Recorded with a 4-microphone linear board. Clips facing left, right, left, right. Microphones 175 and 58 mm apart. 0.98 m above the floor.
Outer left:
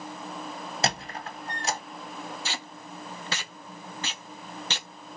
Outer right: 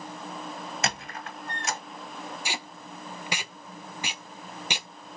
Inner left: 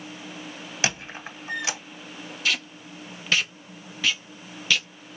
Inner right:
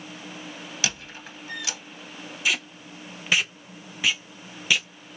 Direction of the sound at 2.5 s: 15° right (ahead or behind).